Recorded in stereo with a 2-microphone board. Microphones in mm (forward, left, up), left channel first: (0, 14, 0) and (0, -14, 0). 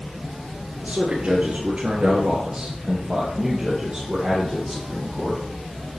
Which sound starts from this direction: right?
A man speaking, at 0.8 s.